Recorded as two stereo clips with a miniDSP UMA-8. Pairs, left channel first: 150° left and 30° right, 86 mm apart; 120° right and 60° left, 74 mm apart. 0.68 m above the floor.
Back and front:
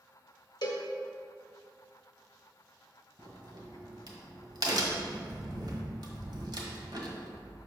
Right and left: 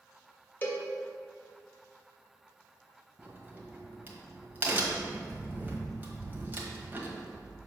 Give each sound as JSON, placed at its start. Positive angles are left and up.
{"t": 0.6, "sound": "a cowbell", "azimuth_deg": 180, "distance_m": 1.1}
{"t": 3.2, "sound": "a crack", "azimuth_deg": -5, "distance_m": 1.2}